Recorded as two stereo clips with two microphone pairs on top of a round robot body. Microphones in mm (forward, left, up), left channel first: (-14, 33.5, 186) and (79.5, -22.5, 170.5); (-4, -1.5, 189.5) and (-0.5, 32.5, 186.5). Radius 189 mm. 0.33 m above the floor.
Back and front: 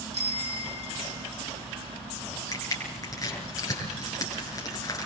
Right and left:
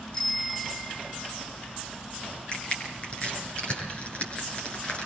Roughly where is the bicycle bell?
Ahead right.